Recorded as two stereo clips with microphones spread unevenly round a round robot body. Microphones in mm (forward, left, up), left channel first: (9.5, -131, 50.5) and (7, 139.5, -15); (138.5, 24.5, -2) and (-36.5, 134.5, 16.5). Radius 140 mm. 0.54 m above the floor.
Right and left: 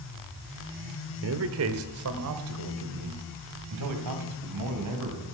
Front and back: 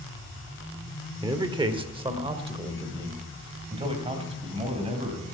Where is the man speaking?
75° left, 1.4 m; by 5.2 s 90° left, 3.5 m.